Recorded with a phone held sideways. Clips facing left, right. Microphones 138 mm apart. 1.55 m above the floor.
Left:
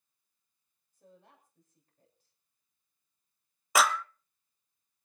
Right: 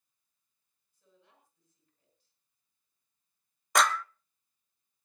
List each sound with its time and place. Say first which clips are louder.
0.9 s a woman speaking: left 7 dB; 50° left (ahead or behind), 9 m
3.8 s a clap: even; 5° left (ahead or behind), 0.5 m